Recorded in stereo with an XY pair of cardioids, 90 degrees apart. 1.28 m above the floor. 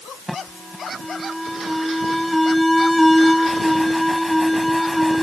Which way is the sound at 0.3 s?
Straight ahead.